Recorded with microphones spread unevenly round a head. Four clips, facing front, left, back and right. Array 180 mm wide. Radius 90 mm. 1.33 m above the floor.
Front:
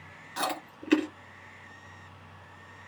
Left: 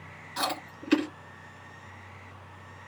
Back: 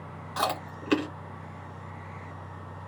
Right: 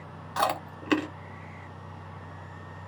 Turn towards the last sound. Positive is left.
turn(degrees=-115)